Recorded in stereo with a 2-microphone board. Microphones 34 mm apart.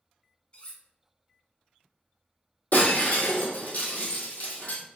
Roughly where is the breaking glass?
Left.